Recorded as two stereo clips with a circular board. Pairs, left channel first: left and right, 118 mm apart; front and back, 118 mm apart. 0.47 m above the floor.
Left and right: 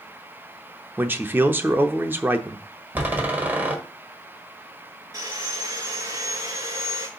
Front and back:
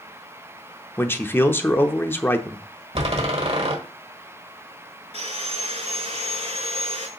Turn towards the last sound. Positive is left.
turn(degrees=-150)